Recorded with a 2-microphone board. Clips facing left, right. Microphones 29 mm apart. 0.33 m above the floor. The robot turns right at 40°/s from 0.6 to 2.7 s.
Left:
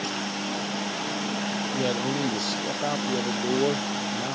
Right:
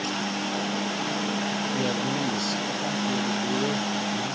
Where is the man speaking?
25° left; by 4.4 s 60° left.